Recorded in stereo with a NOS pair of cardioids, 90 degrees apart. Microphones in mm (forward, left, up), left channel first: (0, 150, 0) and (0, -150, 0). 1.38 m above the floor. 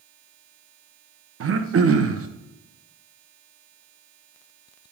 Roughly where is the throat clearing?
Ahead right.